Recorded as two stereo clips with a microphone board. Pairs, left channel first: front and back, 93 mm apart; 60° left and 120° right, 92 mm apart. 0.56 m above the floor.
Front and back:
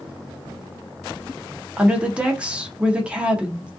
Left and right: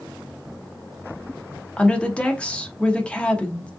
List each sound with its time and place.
1.8 s a woman speaking: 120° left, 0.6 m